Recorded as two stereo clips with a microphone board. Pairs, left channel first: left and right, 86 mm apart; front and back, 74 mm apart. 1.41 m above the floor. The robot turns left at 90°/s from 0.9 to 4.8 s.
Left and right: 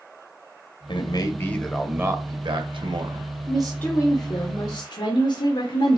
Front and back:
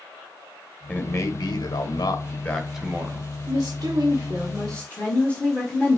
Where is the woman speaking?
170° right, 1.3 m; by 6.0 s 70° left, 1.3 m.